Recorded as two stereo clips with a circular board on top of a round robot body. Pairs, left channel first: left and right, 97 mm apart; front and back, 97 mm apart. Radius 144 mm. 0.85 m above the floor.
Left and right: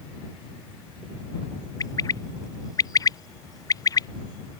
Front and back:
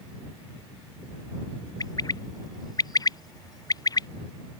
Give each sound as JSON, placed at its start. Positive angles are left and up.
{"t": 1.8, "sound": "a bird", "azimuth_deg": 45}